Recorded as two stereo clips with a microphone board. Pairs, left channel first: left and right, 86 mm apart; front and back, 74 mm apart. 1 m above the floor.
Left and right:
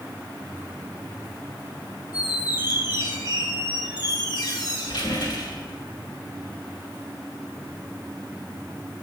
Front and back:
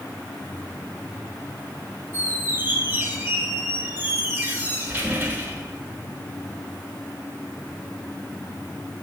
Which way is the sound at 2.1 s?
120° left.